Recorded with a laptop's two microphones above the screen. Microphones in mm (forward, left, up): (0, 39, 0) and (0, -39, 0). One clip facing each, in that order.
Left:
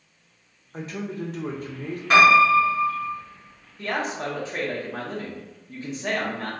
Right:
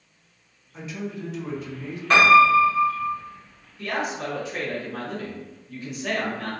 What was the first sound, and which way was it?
A man speaking, 50° left (ahead or behind).